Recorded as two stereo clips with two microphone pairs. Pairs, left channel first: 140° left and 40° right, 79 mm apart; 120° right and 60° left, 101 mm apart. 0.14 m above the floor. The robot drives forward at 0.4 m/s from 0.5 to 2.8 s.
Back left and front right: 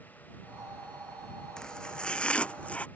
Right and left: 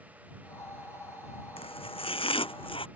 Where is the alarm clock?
No alarm clock in this recording.